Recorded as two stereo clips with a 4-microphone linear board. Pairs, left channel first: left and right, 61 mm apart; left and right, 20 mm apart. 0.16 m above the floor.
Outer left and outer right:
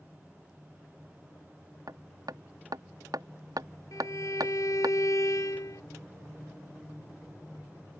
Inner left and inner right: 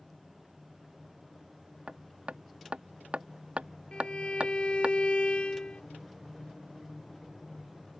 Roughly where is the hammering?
Right.